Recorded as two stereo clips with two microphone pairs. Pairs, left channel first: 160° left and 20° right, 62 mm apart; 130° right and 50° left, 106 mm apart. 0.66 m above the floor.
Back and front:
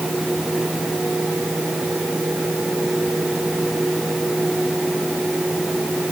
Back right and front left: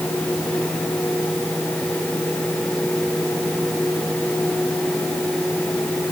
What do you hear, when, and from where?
Only background noise.